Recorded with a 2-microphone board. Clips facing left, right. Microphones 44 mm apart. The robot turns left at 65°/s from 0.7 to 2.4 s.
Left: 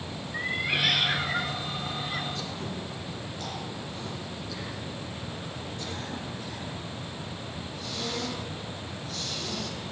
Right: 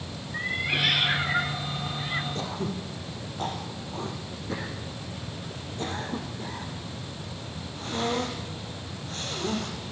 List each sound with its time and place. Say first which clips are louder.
0.3 s a cat meowing: right 1 dB; centre (ahead or behind), 0.6 m; by 2.2 s 20° right (ahead or behind), 0.6 m
2.4 s throat clearing: right 3 dB; 40° right (ahead or behind), 4.5 m; by 9.8 s 35° right (ahead or behind), 4.5 m